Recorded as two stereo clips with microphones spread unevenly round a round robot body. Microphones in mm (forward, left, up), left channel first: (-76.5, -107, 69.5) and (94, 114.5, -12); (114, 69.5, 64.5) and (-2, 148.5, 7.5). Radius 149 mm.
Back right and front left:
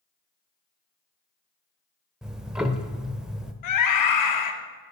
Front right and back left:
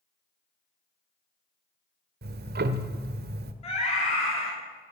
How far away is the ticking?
About 0.9 m.